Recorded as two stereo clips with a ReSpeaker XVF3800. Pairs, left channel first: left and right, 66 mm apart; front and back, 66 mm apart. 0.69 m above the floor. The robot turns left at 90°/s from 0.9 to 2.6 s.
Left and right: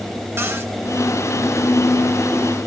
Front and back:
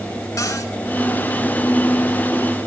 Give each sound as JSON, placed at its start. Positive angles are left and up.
{"t": 0.4, "sound": "a cupboard door", "azimuth_deg": -35, "distance_m": 3.0}